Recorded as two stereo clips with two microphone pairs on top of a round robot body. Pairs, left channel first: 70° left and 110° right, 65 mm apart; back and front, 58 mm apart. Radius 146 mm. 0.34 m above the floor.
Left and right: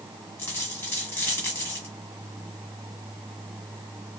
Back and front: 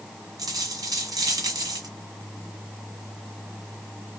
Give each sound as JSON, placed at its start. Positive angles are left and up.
{"t": 0.4, "sound": "a dropped coin", "azimuth_deg": 0, "distance_m": 1.6}